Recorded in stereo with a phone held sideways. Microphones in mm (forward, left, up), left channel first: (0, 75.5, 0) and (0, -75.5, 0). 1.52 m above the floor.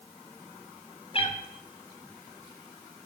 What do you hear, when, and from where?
1.1 s a cat meowing: 40° left (ahead or behind), 1.0 m